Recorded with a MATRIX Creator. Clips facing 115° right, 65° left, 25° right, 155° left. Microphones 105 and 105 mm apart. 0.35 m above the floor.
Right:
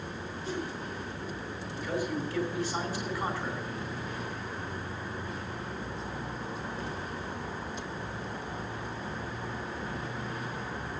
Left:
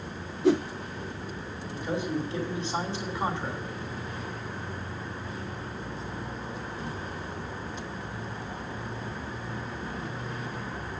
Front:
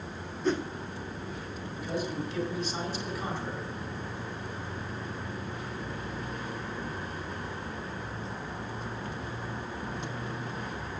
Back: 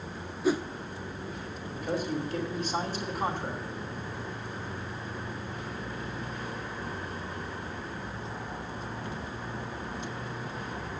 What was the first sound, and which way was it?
A whoosh, 75° left.